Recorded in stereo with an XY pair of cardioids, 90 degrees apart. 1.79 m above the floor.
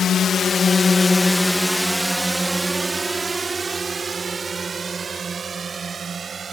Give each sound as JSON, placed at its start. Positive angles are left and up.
{"t": 0.0, "sound": "a drone", "azimuth_deg": 65}